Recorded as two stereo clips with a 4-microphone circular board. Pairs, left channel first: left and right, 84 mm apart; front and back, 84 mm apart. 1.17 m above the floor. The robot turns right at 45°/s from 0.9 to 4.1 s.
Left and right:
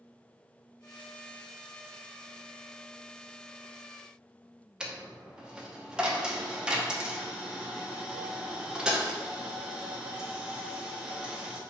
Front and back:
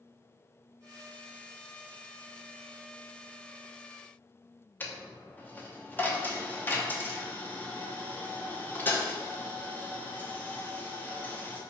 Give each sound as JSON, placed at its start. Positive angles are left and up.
{"t": 4.8, "sound": "a dropped coin", "azimuth_deg": -20, "distance_m": 0.6}